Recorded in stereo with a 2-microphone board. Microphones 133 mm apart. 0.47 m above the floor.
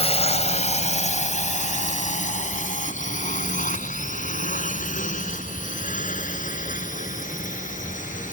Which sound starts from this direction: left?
A drone, at 0.0 s.